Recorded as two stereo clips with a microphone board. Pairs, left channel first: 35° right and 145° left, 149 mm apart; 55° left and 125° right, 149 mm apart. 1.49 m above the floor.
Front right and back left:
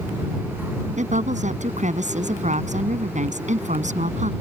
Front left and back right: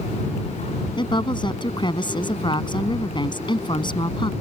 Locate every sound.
1.0 s a woman speaking: 115° left